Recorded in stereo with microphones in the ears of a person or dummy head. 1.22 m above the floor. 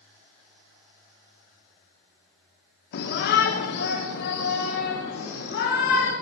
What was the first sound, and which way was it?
A shout, 55° left (ahead or behind).